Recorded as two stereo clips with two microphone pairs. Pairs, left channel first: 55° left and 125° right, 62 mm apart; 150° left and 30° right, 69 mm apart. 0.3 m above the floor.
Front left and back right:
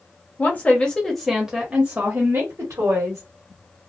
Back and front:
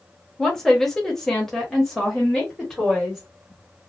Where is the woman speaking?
65° left, 1.0 m; by 3.2 s 130° right, 1.5 m.